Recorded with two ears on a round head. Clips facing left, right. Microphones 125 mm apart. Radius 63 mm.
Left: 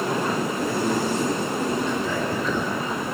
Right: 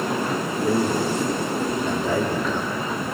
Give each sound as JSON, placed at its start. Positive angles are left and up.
{"t": 0.6, "sound": "a man speaking", "side_deg": -45, "distance_m": 3.0}